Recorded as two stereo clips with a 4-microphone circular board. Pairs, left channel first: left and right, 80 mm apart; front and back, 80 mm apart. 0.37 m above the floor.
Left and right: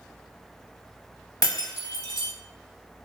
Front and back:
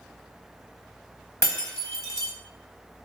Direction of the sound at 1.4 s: 50° left.